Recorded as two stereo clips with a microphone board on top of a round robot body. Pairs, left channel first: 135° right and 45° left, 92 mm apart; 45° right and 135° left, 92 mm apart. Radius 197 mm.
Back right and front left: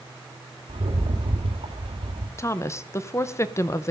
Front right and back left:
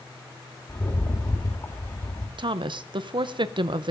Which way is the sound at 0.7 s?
15° left.